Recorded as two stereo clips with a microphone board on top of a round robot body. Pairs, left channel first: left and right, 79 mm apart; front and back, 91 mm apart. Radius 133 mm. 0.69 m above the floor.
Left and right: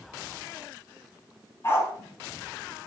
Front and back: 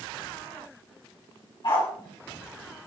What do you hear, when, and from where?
1.6 s a dog barking: 35° left, 5 m